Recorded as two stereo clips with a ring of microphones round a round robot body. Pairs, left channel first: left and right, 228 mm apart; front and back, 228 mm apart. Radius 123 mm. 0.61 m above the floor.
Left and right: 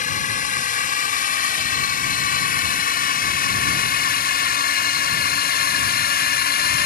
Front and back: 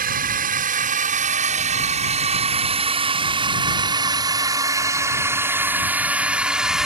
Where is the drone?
140° left; by 6.9 s 95° left.